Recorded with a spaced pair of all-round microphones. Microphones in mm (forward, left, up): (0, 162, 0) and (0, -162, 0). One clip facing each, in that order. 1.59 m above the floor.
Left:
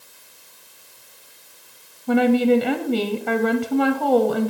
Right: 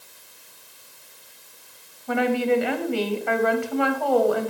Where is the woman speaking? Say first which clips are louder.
Left 6 dB; 45° left (ahead or behind), 0.6 m.